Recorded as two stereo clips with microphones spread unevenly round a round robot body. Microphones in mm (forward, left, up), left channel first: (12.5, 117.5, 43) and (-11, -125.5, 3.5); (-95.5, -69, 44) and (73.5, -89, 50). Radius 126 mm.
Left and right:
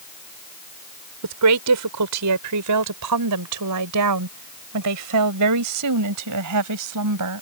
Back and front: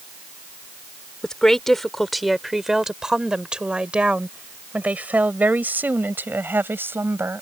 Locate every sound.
1.2 s a woman speaking: 100° right; by 7.4 s 85° right